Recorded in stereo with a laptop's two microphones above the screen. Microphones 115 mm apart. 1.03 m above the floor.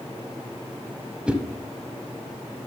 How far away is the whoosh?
About 1.0 m.